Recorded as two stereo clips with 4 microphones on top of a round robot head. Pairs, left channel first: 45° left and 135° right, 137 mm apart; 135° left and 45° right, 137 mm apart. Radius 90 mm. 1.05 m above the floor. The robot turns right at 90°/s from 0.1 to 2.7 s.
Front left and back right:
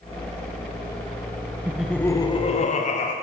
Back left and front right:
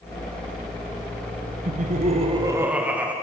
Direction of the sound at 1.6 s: 60° right.